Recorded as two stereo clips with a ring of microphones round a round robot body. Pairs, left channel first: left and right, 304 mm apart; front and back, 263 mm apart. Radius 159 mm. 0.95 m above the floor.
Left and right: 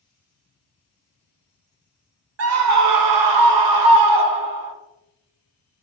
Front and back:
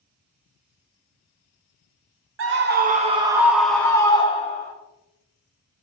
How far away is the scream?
About 1.2 m.